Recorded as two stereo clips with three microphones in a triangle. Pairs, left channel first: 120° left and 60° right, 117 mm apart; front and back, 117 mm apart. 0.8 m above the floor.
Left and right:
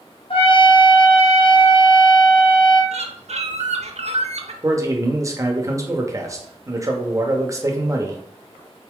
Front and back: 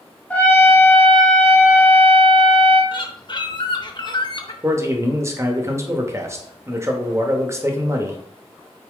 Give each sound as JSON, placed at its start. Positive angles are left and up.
{"t": 0.3, "sound": "a trumpet", "azimuth_deg": 75, "distance_m": 0.9}
{"t": 2.9, "sound": "a bird", "azimuth_deg": -50, "distance_m": 0.6}
{"t": 4.6, "sound": "a man speaking", "azimuth_deg": -115, "distance_m": 0.8}